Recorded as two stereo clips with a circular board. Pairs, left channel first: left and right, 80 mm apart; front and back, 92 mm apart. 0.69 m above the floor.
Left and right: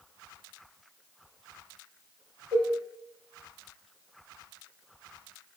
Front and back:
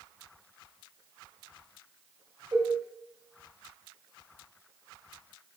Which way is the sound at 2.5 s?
165° left.